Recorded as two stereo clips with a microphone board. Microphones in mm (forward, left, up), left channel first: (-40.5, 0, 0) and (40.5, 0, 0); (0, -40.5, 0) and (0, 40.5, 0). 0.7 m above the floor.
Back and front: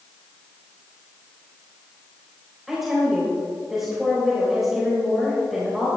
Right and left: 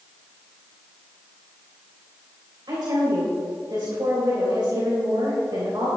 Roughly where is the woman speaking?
Left.